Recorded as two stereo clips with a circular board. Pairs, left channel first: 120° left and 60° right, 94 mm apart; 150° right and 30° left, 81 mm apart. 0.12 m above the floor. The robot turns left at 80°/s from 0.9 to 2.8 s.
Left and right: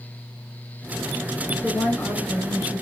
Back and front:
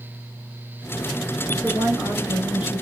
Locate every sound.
1.5 s a woman speaking: 60° left, 2 m; by 2.8 s 45° right, 2 m